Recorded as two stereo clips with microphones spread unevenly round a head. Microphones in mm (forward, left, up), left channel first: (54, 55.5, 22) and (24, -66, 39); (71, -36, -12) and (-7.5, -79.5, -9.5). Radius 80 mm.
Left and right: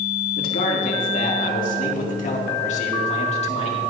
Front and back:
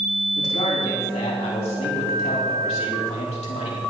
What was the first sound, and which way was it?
A man speaking, 75° left.